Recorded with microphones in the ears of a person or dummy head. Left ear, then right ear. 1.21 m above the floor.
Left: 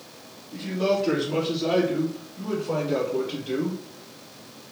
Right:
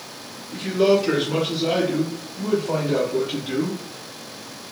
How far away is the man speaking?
About 2 m.